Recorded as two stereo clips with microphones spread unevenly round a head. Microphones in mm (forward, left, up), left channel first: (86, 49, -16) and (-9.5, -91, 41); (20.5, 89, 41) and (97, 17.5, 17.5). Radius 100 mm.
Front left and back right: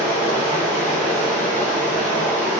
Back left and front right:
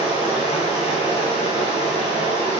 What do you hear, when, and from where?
0.0 s running water: 170° right, 3 m